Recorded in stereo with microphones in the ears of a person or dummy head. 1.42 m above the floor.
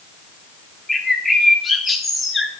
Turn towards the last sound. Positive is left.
turn(degrees=0)  # may be behind; listen again after turning